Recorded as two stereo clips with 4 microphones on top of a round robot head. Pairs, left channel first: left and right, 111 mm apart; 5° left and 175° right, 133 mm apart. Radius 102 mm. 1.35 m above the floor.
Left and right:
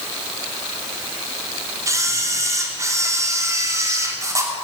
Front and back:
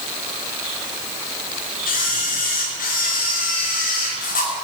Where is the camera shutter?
30° right, 3 m.